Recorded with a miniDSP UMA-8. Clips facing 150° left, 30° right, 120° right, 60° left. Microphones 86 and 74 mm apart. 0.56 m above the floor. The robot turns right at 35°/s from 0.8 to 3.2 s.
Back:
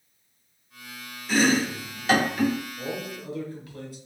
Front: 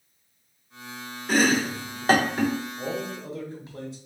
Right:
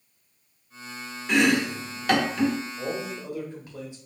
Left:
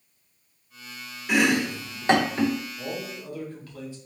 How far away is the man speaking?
About 1.1 m.